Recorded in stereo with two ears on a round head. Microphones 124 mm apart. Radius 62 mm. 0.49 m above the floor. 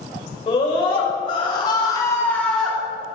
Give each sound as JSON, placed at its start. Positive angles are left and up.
{"t": 0.5, "sound": "a scream", "side_deg": 45, "distance_m": 2.5}